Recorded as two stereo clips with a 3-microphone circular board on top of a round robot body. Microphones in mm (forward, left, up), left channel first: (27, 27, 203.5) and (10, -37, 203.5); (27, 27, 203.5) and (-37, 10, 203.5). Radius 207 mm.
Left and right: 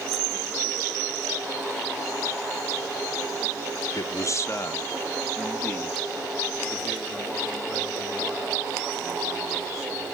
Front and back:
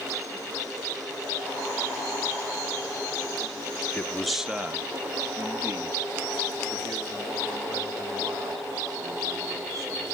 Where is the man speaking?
80° left, 0.9 m; by 10.0 s 160° left, 6.5 m.